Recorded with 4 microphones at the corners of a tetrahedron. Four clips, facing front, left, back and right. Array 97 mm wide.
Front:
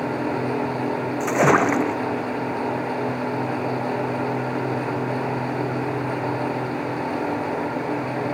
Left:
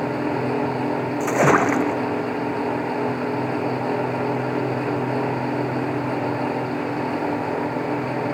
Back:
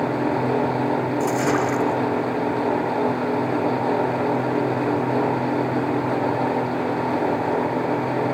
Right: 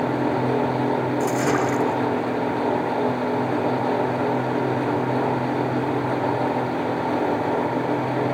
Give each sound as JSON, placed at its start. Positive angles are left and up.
{"t": 1.2, "sound": "a splash", "azimuth_deg": 45, "distance_m": 0.7}